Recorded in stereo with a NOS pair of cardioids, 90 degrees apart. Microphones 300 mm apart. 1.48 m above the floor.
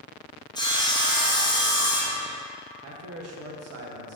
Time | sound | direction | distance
0.6 | sawing | 15° left | 0.7 m
2.8 | a man speaking | 60° right | 0.7 m